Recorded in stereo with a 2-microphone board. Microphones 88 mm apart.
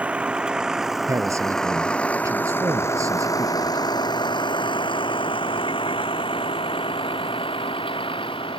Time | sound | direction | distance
0.0 | a vehicle | 15° right (ahead or behind) | ?
1.1 | a man speaking | 40° right (ahead or behind) | ?